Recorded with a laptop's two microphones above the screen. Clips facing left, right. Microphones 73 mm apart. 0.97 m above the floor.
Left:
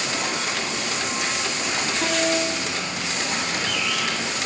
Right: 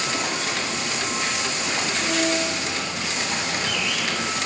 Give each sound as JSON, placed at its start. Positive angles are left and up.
{"t": 2.0, "sound": "a piano", "side_deg": 65, "distance_m": 7.0}